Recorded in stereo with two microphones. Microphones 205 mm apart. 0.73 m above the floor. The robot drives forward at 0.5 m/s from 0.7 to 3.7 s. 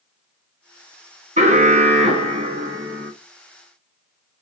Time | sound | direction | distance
1.4 | an alarm | 30° right (ahead or behind) | 0.6 m